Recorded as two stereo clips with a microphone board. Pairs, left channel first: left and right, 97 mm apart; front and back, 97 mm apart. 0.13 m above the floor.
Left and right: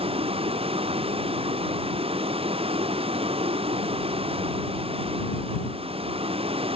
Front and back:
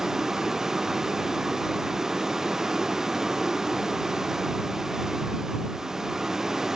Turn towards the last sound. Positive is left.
turn(degrees=-95)